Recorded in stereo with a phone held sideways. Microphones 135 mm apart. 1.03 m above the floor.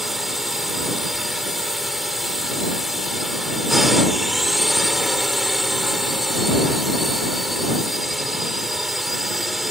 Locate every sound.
0.0 s a drone: centre (ahead or behind)